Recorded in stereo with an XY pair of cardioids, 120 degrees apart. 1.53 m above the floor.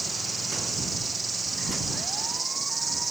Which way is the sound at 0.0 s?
20° right.